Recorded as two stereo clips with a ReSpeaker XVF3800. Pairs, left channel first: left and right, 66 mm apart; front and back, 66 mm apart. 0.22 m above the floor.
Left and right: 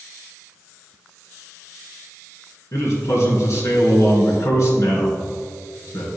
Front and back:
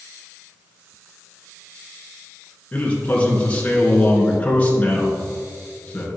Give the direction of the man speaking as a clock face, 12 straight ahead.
10 o'clock.